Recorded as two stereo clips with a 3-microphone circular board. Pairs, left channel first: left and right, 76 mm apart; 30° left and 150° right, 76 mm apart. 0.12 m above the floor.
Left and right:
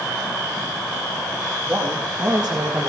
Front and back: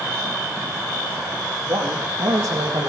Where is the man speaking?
155° right, 4.5 m.